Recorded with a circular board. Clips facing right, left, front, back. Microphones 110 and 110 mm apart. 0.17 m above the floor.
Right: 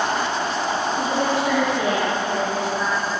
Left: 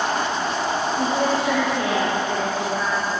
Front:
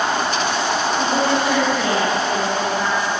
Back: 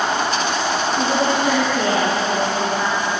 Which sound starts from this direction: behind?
A woman speaking, at 1.0 s.